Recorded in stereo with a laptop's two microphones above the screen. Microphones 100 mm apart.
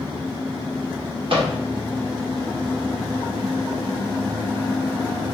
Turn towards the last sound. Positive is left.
turn(degrees=-60)  # may be behind; listen again after turning